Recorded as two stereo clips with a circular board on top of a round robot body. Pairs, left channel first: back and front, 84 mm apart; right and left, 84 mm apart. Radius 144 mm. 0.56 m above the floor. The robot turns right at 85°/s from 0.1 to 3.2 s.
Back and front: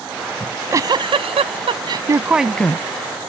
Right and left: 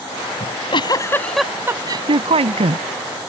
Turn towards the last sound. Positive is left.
turn(degrees=155)